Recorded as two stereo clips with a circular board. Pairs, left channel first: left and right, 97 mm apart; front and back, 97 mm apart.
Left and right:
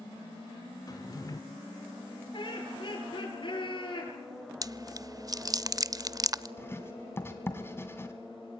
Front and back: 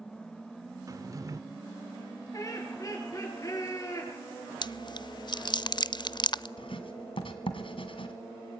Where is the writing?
25° left, 2.5 m.